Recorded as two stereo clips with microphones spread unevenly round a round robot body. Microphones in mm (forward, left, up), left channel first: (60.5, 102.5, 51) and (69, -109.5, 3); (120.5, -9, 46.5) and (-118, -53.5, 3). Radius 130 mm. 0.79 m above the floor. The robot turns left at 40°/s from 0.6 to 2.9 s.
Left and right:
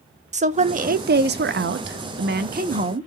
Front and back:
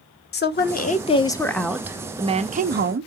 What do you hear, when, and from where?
0.3 s a woman speaking: 40° right, 0.8 m; by 3.1 s 135° right, 0.8 m